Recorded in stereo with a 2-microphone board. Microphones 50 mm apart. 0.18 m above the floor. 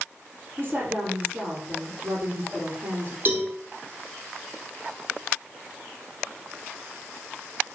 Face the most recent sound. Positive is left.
turn(degrees=-40)  # may be behind; listen again after turning